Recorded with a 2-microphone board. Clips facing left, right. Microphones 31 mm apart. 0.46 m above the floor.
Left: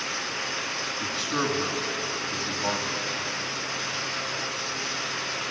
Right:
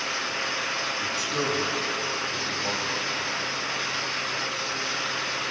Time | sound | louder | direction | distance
1.0 | a man speaking | even | 30° left (ahead or behind) | 5.5 m